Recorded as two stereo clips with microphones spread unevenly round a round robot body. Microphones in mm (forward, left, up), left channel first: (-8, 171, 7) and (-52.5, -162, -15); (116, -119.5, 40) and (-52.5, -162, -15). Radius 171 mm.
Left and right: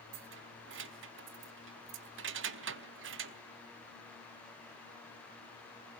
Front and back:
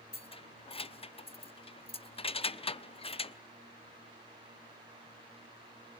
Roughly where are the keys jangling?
Ahead right.